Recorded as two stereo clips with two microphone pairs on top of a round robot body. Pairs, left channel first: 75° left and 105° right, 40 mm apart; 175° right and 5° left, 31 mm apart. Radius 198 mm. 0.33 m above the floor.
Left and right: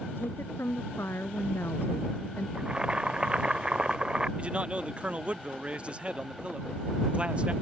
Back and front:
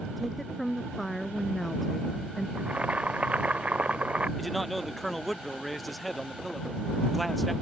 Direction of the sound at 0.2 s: 95° left.